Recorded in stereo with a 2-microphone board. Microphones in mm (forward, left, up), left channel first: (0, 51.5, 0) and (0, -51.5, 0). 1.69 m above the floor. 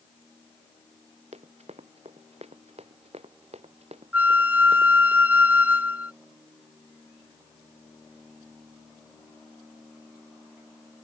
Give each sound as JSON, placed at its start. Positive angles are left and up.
{"t": 1.3, "sound": "running footsteps", "side_deg": -80}
{"t": 4.1, "sound": "a flute", "side_deg": -15}